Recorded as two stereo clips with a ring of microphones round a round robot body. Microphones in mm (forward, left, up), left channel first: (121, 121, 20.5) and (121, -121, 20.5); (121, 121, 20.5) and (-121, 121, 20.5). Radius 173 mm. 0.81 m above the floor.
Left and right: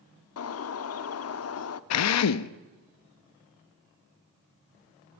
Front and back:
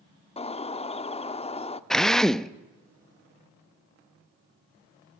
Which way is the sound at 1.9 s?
90° left.